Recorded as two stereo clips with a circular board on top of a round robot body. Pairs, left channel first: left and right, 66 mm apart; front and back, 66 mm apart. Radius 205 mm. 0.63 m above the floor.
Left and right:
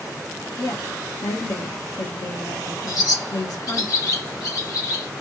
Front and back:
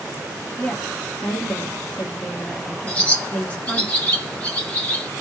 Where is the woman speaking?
70° left, 1.7 m.